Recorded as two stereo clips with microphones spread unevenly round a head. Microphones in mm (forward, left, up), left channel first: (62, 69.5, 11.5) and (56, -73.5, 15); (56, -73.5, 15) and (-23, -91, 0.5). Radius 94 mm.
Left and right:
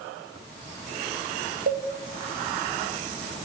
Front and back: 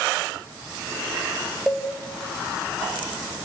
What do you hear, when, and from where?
1.7 s a cowbell: 80° right, 1.4 m